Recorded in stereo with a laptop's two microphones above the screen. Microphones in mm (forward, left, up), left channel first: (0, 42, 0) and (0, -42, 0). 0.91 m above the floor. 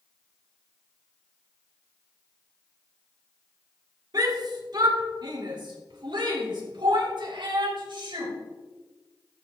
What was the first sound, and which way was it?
A shout, 50° right (ahead or behind).